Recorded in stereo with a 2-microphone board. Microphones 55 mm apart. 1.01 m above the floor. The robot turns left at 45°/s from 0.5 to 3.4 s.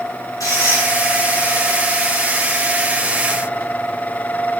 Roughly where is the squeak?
Left.